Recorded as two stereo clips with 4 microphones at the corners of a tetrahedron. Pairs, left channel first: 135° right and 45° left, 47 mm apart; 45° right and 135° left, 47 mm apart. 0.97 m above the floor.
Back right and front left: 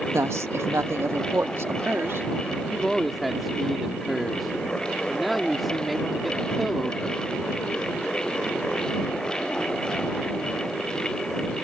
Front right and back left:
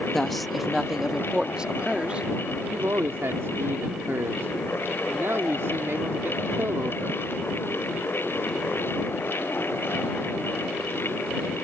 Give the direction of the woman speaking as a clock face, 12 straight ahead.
11 o'clock.